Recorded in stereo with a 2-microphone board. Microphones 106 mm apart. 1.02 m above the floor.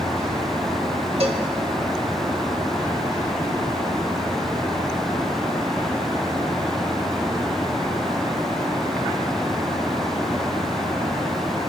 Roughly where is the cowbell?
Right.